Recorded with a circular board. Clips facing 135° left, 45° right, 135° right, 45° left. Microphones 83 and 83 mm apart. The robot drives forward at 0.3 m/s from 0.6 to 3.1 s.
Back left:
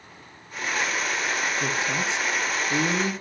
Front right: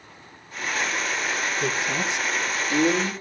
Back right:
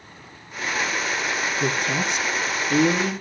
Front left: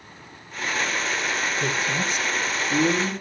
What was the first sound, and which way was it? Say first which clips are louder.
A woman speaking: front right 1 dB, back right 2 dB; 155° right.